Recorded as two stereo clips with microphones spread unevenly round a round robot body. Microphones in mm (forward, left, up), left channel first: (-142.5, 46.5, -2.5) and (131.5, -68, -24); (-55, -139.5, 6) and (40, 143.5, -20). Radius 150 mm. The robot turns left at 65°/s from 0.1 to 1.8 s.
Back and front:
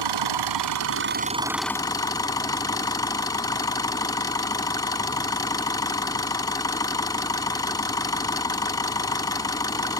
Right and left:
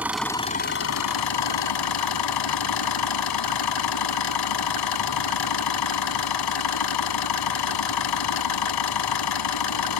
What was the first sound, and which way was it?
An engine running, 15° right.